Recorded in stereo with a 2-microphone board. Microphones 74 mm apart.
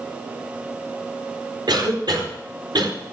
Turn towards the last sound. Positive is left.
turn(degrees=-80)